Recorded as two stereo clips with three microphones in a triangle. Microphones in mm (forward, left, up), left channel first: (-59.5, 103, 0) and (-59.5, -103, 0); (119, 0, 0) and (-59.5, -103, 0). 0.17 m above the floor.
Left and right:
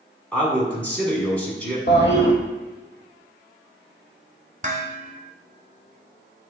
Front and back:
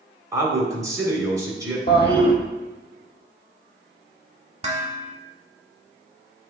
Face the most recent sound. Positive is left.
turn(degrees=-115)